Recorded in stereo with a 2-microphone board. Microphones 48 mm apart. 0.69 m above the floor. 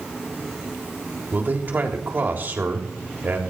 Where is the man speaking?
45° right (ahead or behind), 3.5 m.